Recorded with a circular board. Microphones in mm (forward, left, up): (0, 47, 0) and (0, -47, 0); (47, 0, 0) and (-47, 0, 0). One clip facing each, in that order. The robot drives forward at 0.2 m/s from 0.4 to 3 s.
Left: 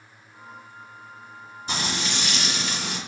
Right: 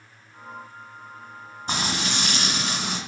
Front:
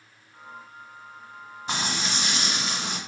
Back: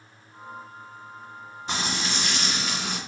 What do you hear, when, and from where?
1.7 s frying: 80° right, 1.5 m; by 3.0 s 95° right, 1.5 m